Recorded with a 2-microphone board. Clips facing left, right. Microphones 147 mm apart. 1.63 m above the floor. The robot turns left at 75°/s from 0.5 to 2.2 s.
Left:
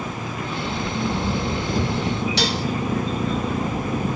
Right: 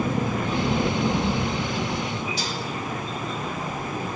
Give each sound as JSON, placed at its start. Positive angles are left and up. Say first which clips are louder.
{"t": 0.0, "sound": "an engine running", "louder": "right 5 dB", "azimuth_deg": -125, "distance_m": 1.8}
{"t": 2.4, "sound": "dishes clattering", "louder": "left 7 dB", "side_deg": 65, "distance_m": 1.5}